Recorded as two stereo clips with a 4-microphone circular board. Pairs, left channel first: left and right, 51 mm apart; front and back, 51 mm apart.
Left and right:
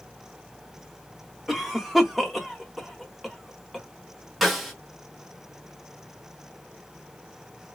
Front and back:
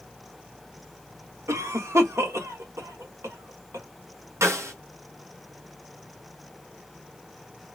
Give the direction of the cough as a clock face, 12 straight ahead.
6 o'clock.